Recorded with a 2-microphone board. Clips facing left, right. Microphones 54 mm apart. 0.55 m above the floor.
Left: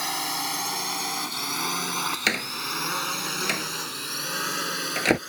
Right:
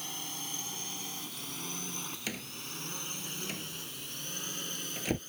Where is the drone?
70° left (ahead or behind); by 5.3 s 80° left.